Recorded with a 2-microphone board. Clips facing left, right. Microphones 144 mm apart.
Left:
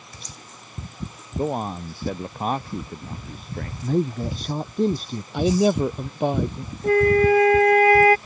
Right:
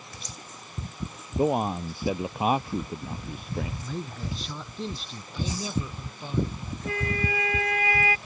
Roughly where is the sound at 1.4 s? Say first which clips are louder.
Right 1 dB; centre.